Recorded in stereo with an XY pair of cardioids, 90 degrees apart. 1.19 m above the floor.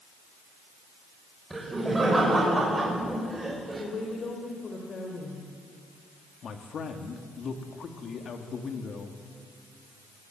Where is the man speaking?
60° left, 3 m.